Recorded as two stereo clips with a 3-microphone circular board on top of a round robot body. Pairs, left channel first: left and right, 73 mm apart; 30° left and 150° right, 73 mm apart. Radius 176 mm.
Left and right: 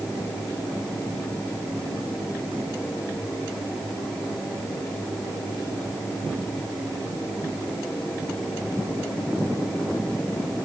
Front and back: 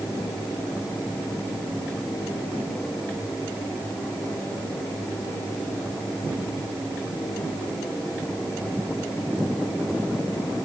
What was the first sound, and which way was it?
Only background noise.